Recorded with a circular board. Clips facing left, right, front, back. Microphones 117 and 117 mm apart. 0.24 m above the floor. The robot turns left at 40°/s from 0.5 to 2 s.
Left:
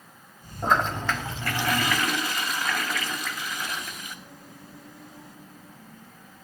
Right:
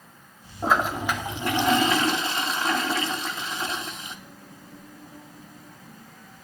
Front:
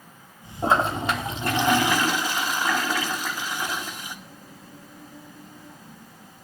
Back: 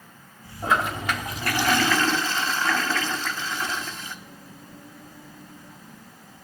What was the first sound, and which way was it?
A toilet flushing, 10° right.